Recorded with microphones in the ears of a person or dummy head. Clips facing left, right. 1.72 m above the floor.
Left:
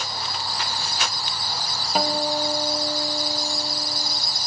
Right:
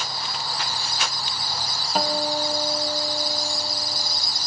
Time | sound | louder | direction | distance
1.9 | a guitar | left 1 dB | 10° left (ahead or behind) | 1.3 m